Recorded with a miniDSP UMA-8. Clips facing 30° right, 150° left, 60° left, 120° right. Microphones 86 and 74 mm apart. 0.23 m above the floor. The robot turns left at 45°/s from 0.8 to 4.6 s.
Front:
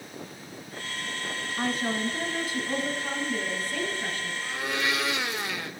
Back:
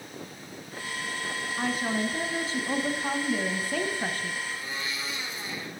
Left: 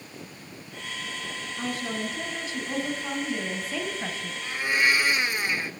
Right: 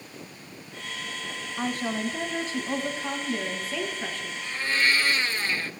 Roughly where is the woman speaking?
Behind right.